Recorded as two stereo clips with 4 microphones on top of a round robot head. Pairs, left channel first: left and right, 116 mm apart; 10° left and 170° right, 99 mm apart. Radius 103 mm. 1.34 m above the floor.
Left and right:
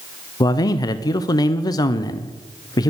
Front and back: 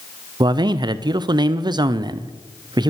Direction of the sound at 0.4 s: 145° left.